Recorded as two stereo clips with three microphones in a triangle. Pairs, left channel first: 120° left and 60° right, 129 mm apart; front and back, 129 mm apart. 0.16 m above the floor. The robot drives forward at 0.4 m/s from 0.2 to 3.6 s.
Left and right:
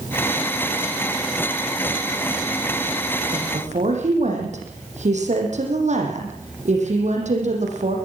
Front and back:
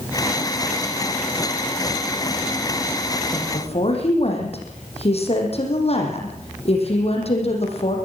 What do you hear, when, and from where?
3.3 s a woman speaking: 35° right, 8 m